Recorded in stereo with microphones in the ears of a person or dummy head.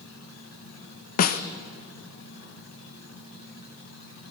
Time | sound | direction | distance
0.0 | an insect | 70° left (ahead or behind) | 3.5 m
1.2 | a snare drum | 50° left (ahead or behind) | 1.4 m